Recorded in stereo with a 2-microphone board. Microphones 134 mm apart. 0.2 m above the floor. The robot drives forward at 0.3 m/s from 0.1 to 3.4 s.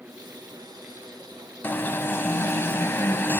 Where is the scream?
I don't hear a scream.